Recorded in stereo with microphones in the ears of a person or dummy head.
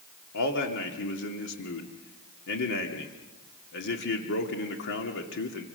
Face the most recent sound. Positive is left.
turn(degrees=70)  # may be behind; listen again after turning